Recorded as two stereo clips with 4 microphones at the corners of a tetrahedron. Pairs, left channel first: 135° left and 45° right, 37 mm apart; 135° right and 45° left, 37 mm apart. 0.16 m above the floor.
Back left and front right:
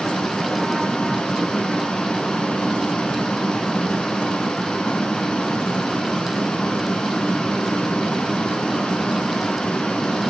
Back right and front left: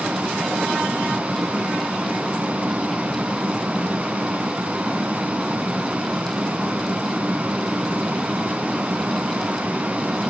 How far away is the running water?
About 1.3 m.